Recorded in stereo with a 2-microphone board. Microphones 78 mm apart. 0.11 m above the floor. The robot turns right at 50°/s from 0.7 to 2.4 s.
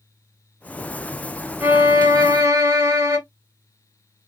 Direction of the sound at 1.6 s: 20° right (ahead or behind).